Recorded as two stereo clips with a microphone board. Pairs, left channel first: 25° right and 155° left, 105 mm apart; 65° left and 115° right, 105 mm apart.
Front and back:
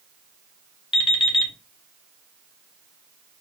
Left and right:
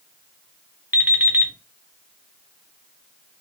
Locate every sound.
0.9 s an alarm clock: 45° right, 0.6 m